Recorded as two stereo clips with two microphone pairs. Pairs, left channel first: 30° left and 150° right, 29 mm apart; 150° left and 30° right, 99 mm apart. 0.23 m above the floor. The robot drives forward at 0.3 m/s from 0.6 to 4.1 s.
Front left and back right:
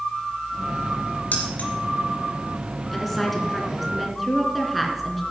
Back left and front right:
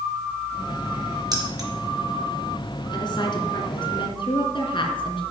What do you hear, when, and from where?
1.3 s keys jangling: 15° left, 3 m
2.9 s a woman speaking: 115° left, 2 m; by 5.2 s 125° left, 2 m